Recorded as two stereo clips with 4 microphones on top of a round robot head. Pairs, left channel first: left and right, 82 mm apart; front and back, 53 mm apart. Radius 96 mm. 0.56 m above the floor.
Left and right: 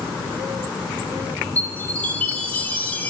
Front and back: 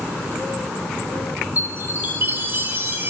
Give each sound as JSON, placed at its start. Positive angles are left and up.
{"t": 1.6, "sound": "a chime", "azimuth_deg": 155, "distance_m": 1.3}